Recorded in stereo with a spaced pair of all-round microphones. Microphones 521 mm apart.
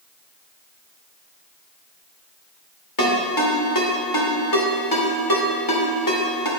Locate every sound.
3.0 s a ringtone: 40° left (ahead or behind), 1.5 m